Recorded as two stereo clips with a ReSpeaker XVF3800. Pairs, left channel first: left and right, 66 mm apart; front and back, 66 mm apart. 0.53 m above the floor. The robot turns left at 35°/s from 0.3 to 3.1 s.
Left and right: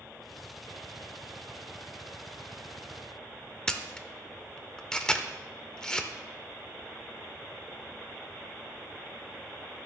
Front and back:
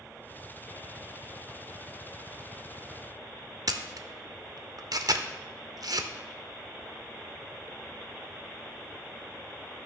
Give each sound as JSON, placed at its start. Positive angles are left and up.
{"t": 3.7, "sound": "a camera shutter", "azimuth_deg": 170, "distance_m": 0.5}